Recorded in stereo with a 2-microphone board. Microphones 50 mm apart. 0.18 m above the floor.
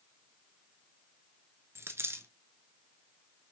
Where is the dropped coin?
65° right (ahead or behind), 0.6 m.